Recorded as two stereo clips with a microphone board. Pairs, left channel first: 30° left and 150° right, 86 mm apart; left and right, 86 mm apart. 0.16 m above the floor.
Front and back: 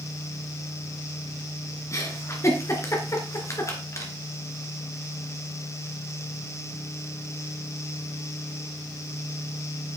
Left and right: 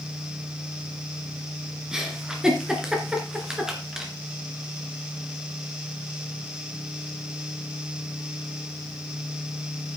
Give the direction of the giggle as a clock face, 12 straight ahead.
12 o'clock.